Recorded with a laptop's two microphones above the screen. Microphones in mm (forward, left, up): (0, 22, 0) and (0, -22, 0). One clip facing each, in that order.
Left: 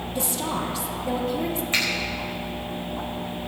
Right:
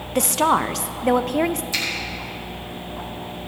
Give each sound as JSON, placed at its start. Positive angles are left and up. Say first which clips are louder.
{"t": 0.1, "sound": "a woman speaking", "louder": "right 10 dB", "side_deg": -60, "distance_m": 0.5}
{"t": 1.7, "sound": "a finger snap", "louder": "left 2 dB", "side_deg": 40, "distance_m": 4.5}